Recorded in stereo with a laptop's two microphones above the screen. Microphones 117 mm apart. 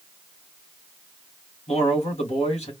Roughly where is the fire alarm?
No fire alarm in this recording.